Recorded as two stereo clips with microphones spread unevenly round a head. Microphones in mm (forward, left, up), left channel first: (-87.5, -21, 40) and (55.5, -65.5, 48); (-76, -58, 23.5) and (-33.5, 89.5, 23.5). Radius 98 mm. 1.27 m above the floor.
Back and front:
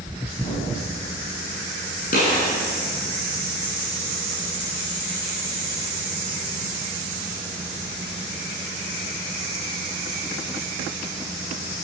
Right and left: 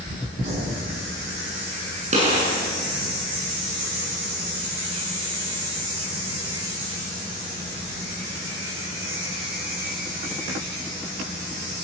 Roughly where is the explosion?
Left.